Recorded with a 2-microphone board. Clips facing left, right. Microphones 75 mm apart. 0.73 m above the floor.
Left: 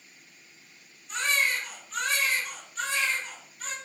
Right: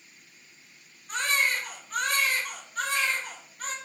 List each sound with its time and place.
1.1 s a baby crying: 45° right (ahead or behind), 1.0 m